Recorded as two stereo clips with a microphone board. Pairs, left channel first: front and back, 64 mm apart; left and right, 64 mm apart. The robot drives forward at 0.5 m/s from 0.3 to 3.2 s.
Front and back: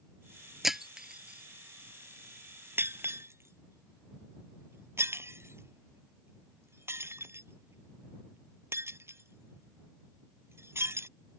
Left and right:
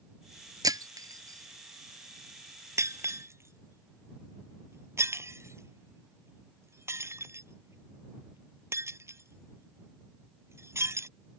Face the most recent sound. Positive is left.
turn(degrees=-130)